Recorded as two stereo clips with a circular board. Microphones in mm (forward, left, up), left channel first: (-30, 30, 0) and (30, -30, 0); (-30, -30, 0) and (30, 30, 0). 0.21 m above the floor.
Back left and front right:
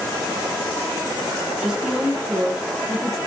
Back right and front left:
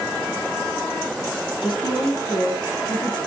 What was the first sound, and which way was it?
A woman speaking, 130° right.